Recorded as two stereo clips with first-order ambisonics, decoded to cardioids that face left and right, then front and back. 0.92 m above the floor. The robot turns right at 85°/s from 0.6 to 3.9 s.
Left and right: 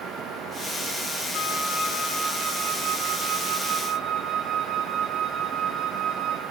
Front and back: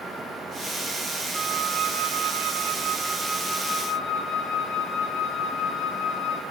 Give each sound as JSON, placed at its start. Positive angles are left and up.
{"t": 1.3, "sound": "a flute", "azimuth_deg": 105, "distance_m": 1.8}